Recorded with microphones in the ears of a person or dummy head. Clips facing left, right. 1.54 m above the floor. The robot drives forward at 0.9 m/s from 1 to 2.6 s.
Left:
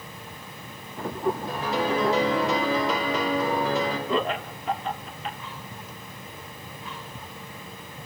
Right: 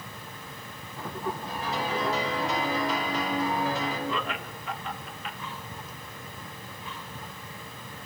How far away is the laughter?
About 0.9 m.